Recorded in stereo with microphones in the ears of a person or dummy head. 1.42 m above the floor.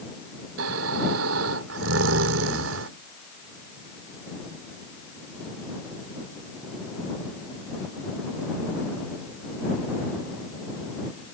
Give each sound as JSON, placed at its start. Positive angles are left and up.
{"t": 0.6, "sound": "snoring", "side_deg": -85}